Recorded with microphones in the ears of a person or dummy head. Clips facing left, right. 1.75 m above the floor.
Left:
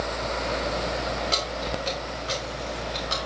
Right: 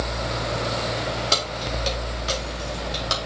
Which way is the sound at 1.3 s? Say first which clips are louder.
Right 1 dB; 55° right (ahead or behind).